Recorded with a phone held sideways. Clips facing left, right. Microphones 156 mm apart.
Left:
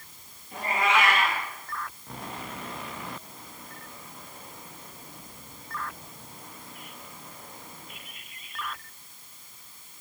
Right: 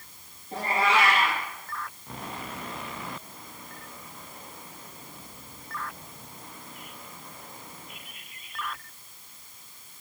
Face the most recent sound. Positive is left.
turn(degrees=-35)  # may be behind; listen again after turning